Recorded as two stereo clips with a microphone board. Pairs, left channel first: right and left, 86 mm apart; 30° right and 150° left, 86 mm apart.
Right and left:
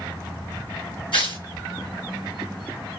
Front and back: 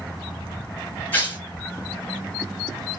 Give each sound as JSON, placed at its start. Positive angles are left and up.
{"t": 1.1, "sound": "tearing paper", "azimuth_deg": -95, "distance_m": 2.5}